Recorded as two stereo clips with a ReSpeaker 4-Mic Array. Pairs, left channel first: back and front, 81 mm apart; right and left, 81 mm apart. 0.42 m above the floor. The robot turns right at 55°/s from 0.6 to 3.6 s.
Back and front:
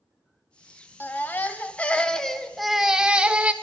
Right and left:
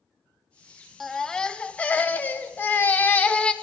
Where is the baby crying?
175° right, 0.6 m; by 3.5 s 40° right, 0.6 m.